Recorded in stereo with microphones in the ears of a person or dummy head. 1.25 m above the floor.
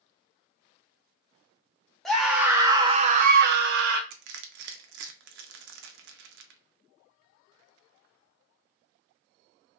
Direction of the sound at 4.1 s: 65° right (ahead or behind).